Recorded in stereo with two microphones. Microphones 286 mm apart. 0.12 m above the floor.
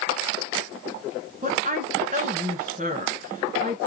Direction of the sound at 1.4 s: 30° right (ahead or behind).